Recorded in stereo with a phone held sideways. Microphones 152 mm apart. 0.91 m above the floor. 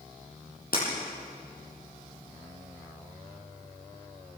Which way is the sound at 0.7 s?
80° left.